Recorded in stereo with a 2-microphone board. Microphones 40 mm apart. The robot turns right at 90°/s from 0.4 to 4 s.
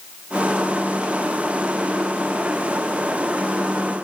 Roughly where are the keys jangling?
No keys jangling in this recording.